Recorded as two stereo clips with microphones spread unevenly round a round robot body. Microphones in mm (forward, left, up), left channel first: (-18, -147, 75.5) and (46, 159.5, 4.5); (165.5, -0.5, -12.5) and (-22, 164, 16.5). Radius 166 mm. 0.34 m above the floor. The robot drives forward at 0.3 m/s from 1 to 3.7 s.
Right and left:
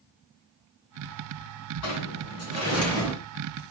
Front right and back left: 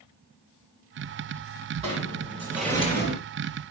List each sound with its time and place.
1.8 s a sliding door: 145° right, 2.5 m; by 3.1 s 150° right, 3 m